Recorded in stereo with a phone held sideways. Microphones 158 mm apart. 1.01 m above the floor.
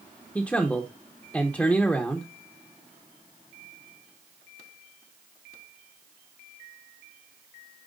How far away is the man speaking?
About 0.9 m.